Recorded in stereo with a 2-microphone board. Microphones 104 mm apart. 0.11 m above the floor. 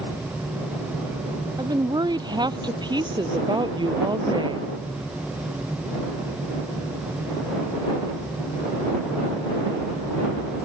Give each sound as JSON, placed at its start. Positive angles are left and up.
{"t": 1.6, "sound": "a woman speaking", "side_deg": -40}